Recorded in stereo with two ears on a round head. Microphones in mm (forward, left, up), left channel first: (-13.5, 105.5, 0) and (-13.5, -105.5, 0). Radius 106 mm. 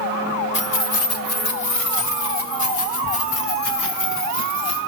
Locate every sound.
0.5 s keys jangling: 50° left (ahead or behind), 1.4 m; by 4.8 s 90° left, 5.5 m